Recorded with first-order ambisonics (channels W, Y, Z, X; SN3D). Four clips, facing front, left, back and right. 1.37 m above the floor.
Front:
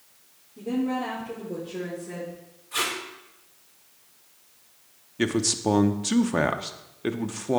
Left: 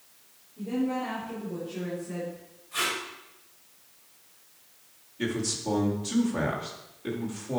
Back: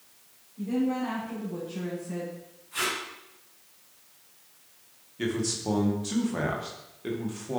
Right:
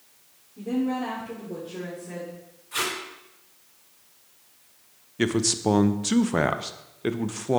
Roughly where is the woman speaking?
Ahead right.